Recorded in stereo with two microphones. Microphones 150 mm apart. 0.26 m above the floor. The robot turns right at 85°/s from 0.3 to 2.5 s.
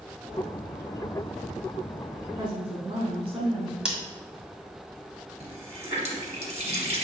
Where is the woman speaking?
30° right (ahead or behind), 2.5 m; by 3.8 s 40° right (ahead or behind), 2.5 m.